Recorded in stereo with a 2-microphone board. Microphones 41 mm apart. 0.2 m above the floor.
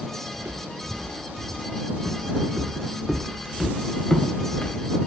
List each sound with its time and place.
0.3 s footsteps: 70° right (ahead or behind); by 5.1 s 40° left (ahead or behind)